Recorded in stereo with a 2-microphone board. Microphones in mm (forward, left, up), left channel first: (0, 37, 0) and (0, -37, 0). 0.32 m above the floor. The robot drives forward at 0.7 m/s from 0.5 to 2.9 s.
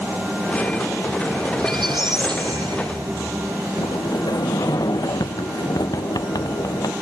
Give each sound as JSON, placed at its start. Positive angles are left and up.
{"t": 1.6, "sound": "a squeak", "side_deg": -85}
{"t": 3.8, "sound": "a sliding door", "side_deg": 60}